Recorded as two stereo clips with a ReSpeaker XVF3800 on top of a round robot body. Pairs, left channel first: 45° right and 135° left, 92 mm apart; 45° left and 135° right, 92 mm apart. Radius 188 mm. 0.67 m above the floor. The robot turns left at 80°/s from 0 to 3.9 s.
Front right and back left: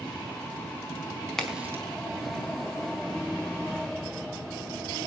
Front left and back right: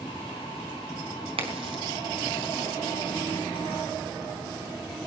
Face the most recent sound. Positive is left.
turn(degrees=30)